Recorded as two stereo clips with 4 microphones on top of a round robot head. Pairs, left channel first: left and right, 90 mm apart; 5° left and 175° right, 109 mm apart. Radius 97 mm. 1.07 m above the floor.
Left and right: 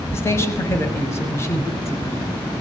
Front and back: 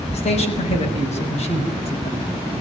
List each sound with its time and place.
0.1 s a man speaking: 30° left, 6.5 m